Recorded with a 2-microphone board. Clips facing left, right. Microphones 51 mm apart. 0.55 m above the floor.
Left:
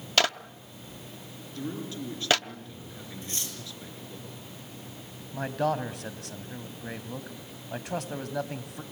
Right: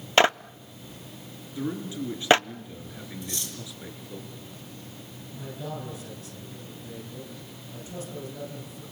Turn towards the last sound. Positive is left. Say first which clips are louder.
# left 9 dB
turn(degrees=70)  # may be behind; listen again after turning